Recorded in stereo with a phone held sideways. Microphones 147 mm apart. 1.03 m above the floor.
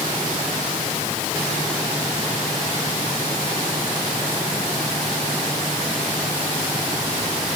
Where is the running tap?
I don't hear a running tap.